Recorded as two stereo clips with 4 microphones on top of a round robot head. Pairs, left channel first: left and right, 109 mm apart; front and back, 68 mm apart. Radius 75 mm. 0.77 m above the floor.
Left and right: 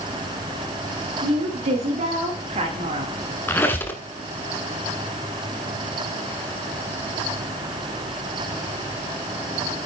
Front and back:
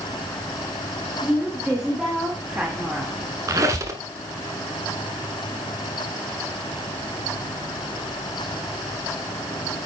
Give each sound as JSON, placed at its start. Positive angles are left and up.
{"t": 1.2, "sound": "a woman speaking", "azimuth_deg": -100, "distance_m": 3.5}
{"t": 3.5, "sound": "a squeak", "azimuth_deg": 155, "distance_m": 1.0}